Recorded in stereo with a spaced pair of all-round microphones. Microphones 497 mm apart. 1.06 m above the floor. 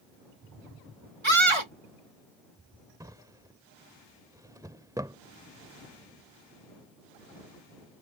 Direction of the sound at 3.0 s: 5° right (ahead or behind).